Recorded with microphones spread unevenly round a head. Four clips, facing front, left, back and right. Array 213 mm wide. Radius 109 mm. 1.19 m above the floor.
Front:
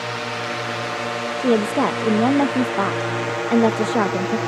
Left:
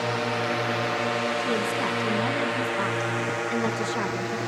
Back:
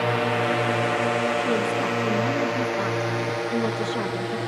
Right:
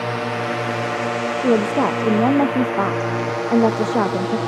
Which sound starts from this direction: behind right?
A drone, at 0.0 s.